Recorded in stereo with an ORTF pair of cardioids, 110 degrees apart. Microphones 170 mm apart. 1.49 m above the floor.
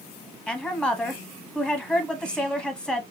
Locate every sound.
0.5 s a woman speaking: 5° left, 0.8 m